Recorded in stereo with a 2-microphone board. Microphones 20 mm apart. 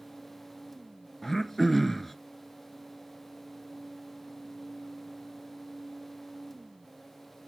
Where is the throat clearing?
5° left (ahead or behind), 0.5 m.